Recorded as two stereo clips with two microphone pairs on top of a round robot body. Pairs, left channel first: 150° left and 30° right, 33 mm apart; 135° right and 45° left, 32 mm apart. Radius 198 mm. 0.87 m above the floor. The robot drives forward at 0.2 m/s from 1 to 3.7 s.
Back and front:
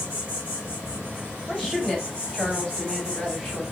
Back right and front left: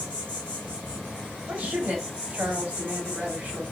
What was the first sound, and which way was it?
An insect, 40° right.